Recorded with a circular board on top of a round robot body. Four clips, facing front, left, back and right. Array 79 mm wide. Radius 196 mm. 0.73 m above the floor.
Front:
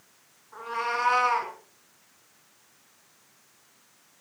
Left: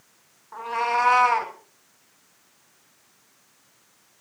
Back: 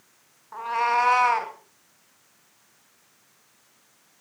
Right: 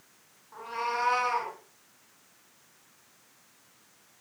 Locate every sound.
0.5 s a cat meowing: 145° left, 3.5 m; by 1.5 s 135° left, 3 m